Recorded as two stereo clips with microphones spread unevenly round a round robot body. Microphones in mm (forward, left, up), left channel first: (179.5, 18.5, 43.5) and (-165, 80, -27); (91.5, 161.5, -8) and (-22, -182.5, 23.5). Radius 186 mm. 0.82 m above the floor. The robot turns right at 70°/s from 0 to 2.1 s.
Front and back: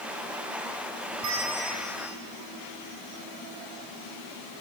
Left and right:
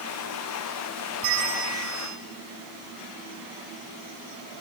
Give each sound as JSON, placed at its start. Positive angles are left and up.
{"t": 1.2, "sound": "a bell", "azimuth_deg": -145, "distance_m": 4.5}